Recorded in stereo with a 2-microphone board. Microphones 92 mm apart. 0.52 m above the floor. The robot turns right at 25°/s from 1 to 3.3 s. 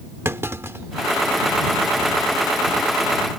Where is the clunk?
30° right (ahead or behind); by 3.4 s 50° right (ahead or behind).